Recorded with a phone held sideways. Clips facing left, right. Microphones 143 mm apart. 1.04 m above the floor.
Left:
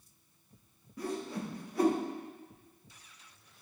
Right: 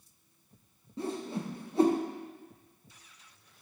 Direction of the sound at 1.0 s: 25° right (ahead or behind).